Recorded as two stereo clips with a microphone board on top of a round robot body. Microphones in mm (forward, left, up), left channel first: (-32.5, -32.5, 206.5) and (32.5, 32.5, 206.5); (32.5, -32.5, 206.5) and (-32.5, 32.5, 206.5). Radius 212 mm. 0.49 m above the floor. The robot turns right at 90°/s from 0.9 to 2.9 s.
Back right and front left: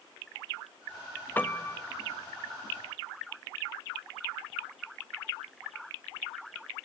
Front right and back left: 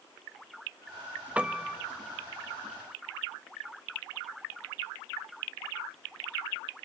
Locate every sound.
1.4 s a piano: 170° right, 1.3 m; by 1.8 s 130° right, 1.3 m